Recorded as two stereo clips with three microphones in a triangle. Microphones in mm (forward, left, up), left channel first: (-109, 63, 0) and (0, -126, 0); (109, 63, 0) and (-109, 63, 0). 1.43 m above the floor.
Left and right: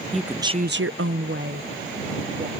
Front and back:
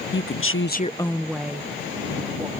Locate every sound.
0.1 s a woman speaking: 30° left; by 2.5 s 110° right